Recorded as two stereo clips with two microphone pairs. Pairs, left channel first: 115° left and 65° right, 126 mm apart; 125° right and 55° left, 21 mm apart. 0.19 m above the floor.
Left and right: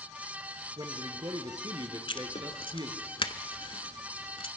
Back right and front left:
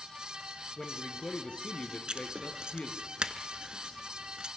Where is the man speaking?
115° right, 3 m.